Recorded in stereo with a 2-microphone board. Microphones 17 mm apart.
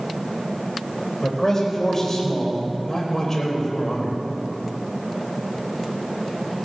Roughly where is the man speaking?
Left.